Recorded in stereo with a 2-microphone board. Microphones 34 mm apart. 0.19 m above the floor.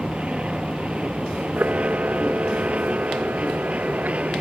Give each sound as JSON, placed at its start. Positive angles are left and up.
{"t": 0.0, "sound": "an aircraft", "side_deg": -35}
{"t": 1.6, "sound": "a camera shutter", "side_deg": -70}